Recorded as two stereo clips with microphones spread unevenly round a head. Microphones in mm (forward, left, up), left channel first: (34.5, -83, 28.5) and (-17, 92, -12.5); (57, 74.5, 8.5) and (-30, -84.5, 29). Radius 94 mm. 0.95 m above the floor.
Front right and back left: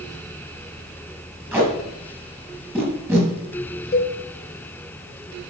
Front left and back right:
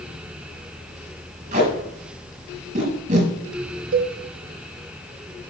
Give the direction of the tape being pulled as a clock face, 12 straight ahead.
6 o'clock.